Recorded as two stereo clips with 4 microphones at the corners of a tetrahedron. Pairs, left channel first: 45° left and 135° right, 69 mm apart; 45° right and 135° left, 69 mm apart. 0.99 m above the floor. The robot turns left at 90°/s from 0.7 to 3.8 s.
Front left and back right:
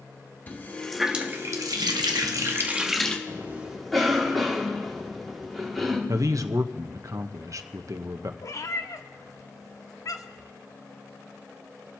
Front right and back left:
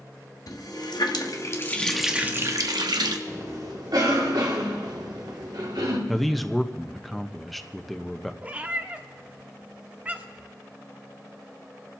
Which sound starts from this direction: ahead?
A running tap, at 0.5 s.